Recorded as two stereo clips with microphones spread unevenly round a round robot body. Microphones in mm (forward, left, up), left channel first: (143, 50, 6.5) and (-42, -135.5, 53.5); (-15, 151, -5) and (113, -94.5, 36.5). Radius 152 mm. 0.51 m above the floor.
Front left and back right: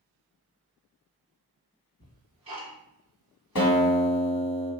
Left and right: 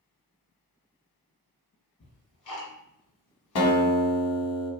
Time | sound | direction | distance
2.0 | ticking | 155° left | 1.1 m
3.5 | a guitar | 85° left | 1.1 m